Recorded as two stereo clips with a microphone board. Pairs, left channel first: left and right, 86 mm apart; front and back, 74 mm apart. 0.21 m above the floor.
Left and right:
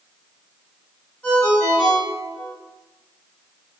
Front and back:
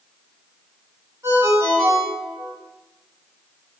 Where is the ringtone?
160° left, 1.6 m.